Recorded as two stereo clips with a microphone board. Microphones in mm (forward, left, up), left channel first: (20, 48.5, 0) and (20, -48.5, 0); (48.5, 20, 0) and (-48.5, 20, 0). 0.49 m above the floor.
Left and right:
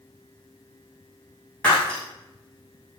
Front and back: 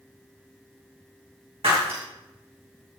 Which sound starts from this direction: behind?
Breaking glass, at 1.6 s.